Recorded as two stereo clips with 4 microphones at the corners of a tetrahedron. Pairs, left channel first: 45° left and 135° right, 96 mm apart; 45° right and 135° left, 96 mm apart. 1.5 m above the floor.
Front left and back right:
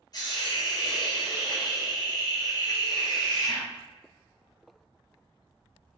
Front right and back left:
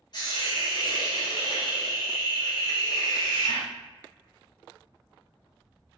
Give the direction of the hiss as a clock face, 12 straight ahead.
12 o'clock.